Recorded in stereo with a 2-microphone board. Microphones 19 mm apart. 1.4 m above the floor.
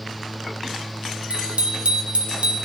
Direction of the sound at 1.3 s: 65° right (ahead or behind).